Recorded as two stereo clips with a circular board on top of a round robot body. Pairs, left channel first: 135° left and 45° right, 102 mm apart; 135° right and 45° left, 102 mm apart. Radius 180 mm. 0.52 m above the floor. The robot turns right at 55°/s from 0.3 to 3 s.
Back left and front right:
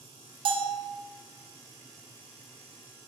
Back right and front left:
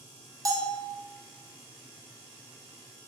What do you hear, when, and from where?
0.5 s a bell: 15° right, 0.5 m; by 0.9 s 10° left, 0.5 m